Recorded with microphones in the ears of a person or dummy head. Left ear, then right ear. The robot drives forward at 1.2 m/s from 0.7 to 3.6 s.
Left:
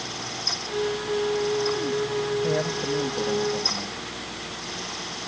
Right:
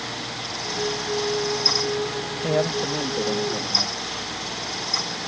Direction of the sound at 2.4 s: 25° right (ahead or behind).